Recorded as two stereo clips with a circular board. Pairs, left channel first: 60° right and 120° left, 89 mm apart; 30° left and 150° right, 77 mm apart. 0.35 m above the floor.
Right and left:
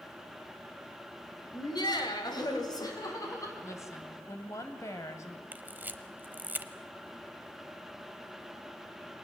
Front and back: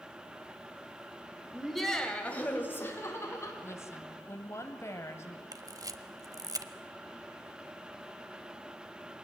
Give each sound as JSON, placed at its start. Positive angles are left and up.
{"t": 1.5, "sound": "laughter", "azimuth_deg": -65, "distance_m": 2.0}
{"t": 3.6, "sound": "a woman speaking", "azimuth_deg": -15, "distance_m": 2.0}
{"t": 5.5, "sound": "a camera shutter", "azimuth_deg": -175, "distance_m": 0.8}